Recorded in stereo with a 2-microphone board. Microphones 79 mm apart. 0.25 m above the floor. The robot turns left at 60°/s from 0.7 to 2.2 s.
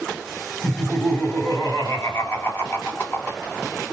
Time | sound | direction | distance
0.6 | laughter | 150° left | 2.0 m